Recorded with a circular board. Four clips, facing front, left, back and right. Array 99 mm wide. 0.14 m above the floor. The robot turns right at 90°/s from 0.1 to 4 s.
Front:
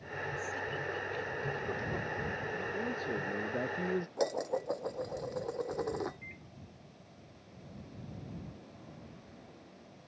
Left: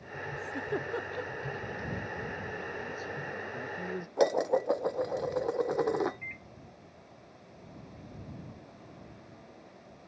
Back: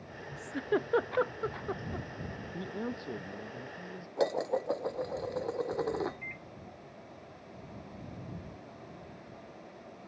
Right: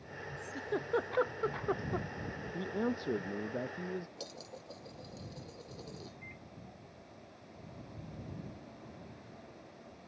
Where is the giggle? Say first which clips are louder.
Left 2 dB, back 10 dB; 135° left; by 2.1 s 70° right.